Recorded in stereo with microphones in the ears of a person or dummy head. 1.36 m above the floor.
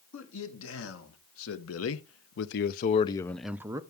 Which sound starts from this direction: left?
A man speaking, at 0.1 s.